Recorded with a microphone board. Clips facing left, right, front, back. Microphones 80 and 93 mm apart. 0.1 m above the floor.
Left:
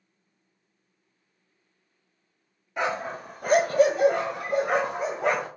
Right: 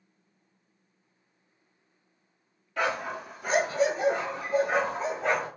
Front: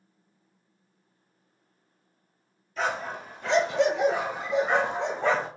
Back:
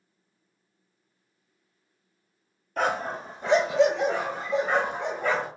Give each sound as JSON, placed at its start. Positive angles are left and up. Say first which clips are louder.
{"t": 2.8, "sound": "a dog barking", "louder": "left 1 dB, back 3 dB", "azimuth_deg": 155, "distance_m": 0.8}